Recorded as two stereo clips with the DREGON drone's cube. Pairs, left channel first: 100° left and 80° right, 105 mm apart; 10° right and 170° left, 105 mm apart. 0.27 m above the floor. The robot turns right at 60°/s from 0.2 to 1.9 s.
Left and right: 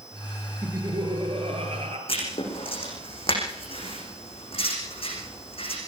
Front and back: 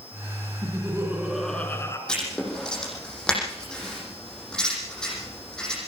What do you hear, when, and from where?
0.6 s laughter: 145° right, 5 m; by 2.0 s 70° right, 5 m
2.1 s writing: 70° left, 9.5 m